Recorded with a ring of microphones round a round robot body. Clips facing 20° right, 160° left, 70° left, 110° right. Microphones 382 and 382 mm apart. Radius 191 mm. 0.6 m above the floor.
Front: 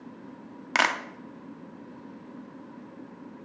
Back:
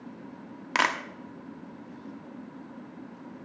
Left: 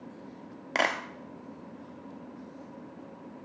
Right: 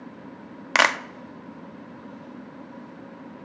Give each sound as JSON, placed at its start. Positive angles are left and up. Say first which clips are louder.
{"t": 0.8, "sound": "a clap", "louder": "front 1 dB, right 4 dB", "azimuth_deg": -105, "distance_m": 0.6}